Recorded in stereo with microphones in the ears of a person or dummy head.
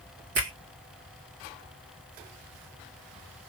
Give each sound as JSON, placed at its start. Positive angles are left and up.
{"t": 0.3, "sound": "a finger snap", "side_deg": -60, "distance_m": 1.7}